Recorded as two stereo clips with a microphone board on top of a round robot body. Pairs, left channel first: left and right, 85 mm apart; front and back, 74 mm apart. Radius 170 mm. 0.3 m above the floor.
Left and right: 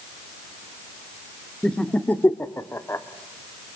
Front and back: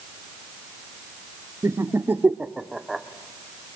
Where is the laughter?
165° left, 1.5 m; by 3.0 s 90° left, 1.4 m.